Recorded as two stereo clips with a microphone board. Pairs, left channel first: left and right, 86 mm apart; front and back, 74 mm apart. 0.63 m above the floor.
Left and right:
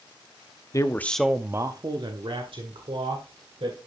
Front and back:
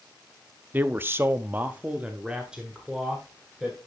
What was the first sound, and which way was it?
A man speaking, 125° left.